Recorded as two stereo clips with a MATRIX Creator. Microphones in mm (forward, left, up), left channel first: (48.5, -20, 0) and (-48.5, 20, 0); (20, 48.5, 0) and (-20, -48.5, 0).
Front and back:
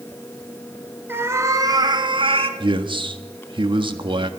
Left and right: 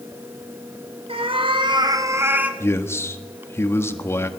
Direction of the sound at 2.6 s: 130° left.